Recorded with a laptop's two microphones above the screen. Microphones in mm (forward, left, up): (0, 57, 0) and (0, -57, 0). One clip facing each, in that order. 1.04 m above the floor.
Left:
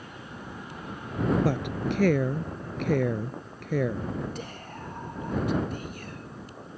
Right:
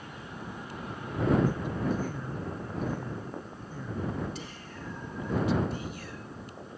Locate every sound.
1.4 s a woman speaking: 85° left
4.3 s whispering: 50° left (ahead or behind)